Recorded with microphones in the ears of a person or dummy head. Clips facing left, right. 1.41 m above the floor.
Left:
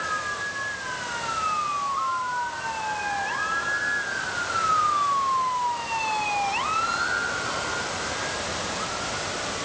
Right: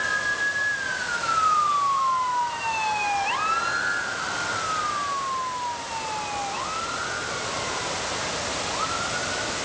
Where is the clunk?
I don't hear a clunk.